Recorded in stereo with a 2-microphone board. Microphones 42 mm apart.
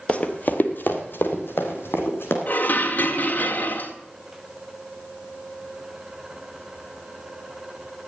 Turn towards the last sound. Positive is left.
turn(degrees=50)  # may be behind; listen again after turning